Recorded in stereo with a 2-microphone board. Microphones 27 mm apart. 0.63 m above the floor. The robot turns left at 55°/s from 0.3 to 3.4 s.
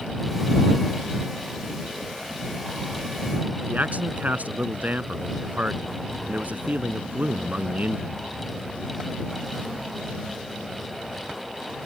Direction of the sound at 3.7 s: 75° right (ahead or behind).